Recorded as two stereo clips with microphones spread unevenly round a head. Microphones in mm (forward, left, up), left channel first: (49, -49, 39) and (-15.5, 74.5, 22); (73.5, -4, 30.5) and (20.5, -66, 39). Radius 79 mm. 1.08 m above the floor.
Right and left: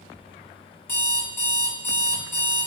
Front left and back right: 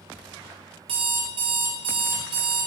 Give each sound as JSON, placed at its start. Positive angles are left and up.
{"t": 0.9, "sound": "an alarm clock", "azimuth_deg": -140, "distance_m": 1.4}